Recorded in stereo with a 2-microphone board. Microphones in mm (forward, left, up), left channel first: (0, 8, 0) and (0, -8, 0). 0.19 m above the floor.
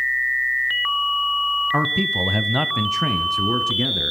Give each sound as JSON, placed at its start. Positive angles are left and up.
{"t": 1.7, "sound": "a man speaking", "side_deg": -40, "distance_m": 1.5}